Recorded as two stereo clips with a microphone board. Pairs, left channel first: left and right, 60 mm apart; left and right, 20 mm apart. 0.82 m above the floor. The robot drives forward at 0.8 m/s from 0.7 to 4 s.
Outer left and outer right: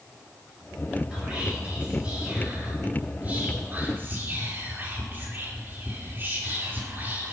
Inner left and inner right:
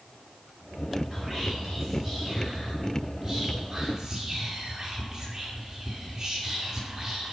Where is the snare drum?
I don't hear a snare drum.